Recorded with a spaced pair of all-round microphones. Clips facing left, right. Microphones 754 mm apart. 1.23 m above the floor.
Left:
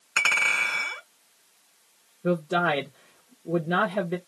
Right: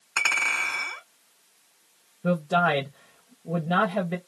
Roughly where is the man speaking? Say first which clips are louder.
Even; right.